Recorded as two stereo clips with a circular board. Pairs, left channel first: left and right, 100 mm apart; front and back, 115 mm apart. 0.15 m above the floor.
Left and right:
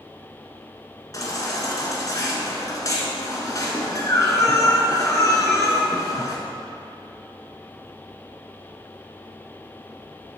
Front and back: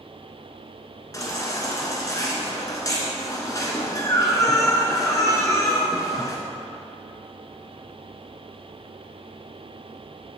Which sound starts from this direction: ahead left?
A baby crying, at 1.1 s.